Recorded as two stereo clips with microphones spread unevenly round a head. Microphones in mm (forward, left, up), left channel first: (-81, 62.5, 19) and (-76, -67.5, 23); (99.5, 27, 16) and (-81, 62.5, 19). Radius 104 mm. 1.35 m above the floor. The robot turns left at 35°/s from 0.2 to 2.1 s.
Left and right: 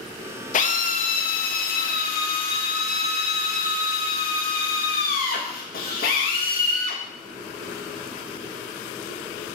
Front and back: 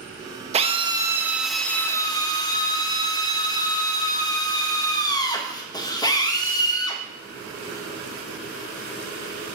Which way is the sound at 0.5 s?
115° left.